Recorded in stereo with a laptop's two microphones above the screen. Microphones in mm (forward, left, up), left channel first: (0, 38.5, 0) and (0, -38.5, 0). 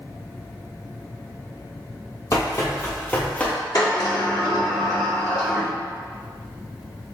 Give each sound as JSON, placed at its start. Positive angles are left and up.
{"t": 2.3, "sound": "running footsteps", "side_deg": 40, "distance_m": 1.3}
{"t": 3.8, "sound": "a sliding door", "side_deg": 50, "distance_m": 1.2}